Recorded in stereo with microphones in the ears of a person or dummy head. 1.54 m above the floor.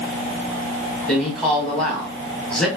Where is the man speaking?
5° left (ahead or behind), 1.3 m.